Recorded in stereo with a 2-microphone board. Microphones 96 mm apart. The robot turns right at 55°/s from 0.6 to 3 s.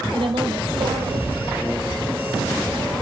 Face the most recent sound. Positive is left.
turn(degrees=45)